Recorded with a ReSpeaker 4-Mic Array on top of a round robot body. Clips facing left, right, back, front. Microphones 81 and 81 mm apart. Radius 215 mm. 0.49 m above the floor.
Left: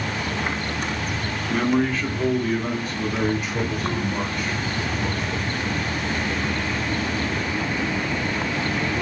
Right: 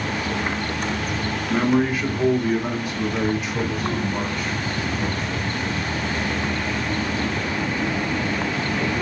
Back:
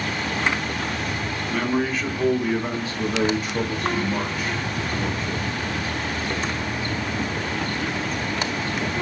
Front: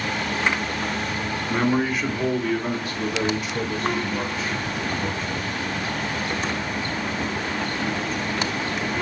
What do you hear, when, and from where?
1.5 s a man speaking: 40° right, 1.1 m; by 5.9 s 170° left, 2.5 m